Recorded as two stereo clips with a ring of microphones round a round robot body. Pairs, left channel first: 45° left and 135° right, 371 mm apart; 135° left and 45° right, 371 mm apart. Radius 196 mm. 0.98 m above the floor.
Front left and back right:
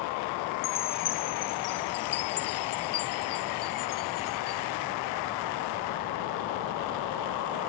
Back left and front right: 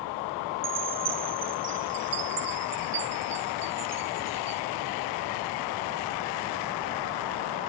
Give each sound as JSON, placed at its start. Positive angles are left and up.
{"t": 0.6, "sound": "a chime", "azimuth_deg": 5}